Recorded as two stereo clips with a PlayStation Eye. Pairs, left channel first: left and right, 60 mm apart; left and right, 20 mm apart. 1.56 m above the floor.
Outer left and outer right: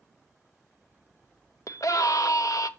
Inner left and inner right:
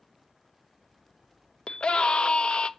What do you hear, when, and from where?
1.7 s a scream: 65° left (ahead or behind), 0.9 m